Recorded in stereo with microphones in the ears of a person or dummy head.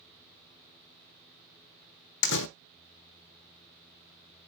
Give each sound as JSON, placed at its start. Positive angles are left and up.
{"t": 2.2, "sound": "a door slam", "side_deg": 65, "distance_m": 0.6}